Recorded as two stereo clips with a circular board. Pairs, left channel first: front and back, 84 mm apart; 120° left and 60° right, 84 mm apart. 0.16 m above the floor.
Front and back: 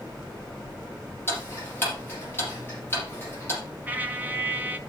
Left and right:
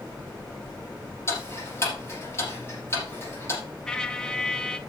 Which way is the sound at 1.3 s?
65° left.